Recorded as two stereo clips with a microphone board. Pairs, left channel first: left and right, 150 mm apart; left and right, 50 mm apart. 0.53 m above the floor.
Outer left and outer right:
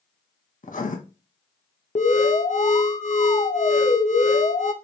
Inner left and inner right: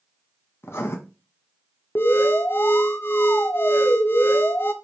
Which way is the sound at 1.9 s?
55° left (ahead or behind).